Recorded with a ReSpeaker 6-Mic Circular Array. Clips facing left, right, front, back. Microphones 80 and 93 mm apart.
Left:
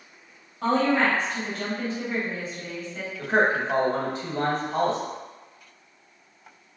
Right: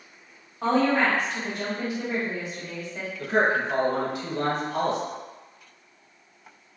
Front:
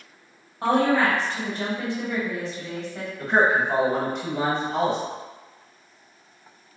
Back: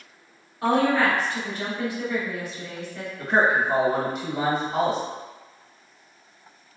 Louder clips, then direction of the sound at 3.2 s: Left 1 dB, front 1 dB; 95° left.